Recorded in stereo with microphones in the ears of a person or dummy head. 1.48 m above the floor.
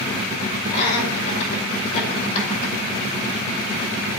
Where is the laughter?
35° left (ahead or behind), 4.5 m.